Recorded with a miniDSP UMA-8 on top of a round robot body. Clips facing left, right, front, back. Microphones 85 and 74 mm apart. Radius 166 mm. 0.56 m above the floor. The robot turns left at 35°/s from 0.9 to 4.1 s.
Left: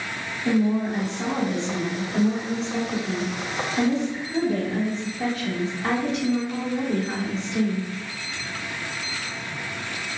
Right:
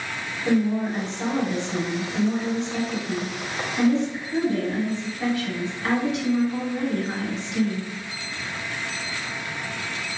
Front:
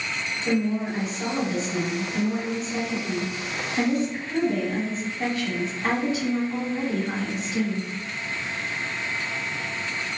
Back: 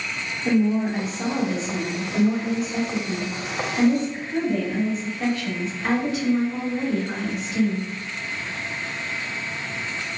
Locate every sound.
0.5 s a woman speaking: 170° left, 1.4 m; by 7.8 s 55° left, 1.4 m